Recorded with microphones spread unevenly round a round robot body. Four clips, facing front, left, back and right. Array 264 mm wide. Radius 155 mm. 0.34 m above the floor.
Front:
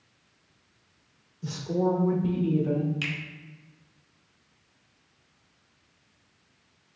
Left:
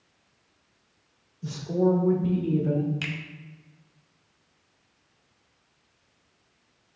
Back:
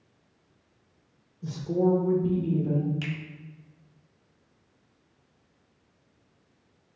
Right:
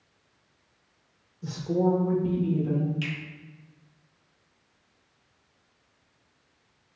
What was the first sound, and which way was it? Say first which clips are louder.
A woman speaking: left 1 dB, back 2 dB; 80° right.